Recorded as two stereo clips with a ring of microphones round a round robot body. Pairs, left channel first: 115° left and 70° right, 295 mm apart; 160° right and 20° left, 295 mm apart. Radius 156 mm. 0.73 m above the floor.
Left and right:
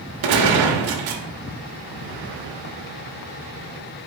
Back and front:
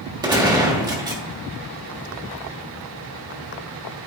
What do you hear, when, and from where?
0.2 s a gunshot: 55° right, 1.3 m